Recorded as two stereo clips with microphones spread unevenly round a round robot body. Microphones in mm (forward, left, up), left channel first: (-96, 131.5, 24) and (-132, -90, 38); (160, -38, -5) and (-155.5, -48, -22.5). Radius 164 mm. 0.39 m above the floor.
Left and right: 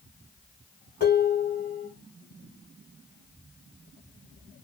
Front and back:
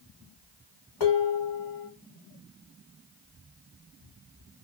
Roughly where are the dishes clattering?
Ahead.